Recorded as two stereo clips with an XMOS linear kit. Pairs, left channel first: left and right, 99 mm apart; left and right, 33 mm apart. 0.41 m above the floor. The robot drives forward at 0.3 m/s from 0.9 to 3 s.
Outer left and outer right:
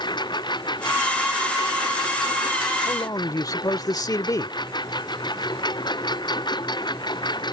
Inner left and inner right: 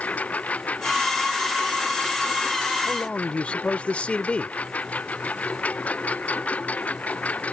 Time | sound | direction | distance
0.0 | a lawn mower | 50° left (ahead or behind) | ?
2.9 | a man speaking | 40° left (ahead or behind) | ?